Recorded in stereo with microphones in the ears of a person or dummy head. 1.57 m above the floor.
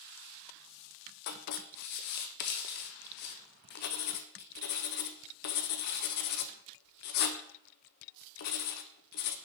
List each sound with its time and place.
1.3 s writing: 50° left (ahead or behind), 0.6 m